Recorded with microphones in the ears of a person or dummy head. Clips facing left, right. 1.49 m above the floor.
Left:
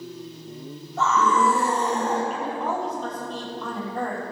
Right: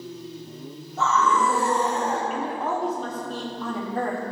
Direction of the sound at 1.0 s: 60° left (ahead or behind).